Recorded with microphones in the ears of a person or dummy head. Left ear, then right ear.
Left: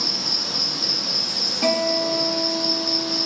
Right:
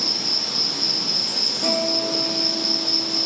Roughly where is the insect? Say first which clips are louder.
Even; right.